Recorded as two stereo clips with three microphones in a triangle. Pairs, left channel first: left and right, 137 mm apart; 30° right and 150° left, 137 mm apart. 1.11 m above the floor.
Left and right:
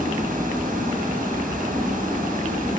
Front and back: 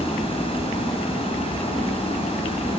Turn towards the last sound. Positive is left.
turn(degrees=-80)